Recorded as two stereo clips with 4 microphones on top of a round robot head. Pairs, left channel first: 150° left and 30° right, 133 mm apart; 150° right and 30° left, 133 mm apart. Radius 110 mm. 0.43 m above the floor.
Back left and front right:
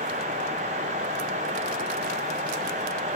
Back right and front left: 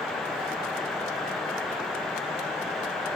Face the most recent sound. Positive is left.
No sound to turn to.